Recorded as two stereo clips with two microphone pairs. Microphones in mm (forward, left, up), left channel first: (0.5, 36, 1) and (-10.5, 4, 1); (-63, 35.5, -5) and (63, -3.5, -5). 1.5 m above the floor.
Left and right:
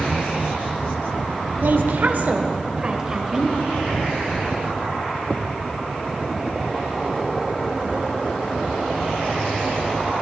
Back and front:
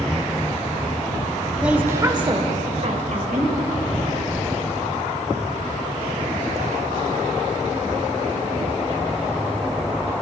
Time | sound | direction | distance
1.6 | a woman speaking | 100° right | 1.2 m